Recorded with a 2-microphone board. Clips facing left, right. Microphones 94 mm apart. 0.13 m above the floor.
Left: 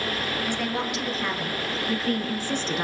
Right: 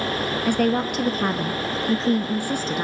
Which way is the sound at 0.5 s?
55° right (ahead or behind).